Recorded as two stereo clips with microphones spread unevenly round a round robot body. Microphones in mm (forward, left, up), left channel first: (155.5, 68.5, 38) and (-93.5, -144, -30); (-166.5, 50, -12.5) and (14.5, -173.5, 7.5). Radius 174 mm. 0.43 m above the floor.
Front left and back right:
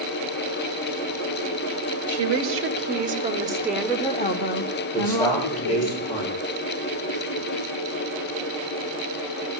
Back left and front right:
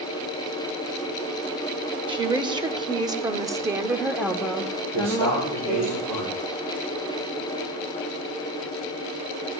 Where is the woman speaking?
125° right, 1.5 m; by 5.9 s 50° left, 1.4 m.